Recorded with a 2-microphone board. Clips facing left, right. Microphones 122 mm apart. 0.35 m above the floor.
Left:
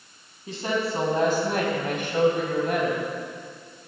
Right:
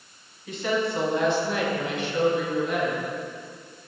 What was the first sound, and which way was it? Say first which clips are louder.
A woman speaking: right 1 dB; 30° left (ahead or behind).